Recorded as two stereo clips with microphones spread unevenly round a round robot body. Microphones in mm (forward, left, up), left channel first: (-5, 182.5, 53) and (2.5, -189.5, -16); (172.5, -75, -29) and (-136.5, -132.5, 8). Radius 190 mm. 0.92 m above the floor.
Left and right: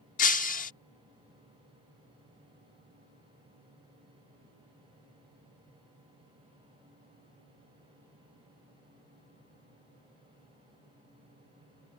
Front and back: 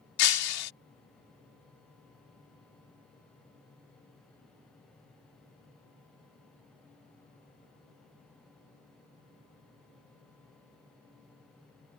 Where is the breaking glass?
25° left.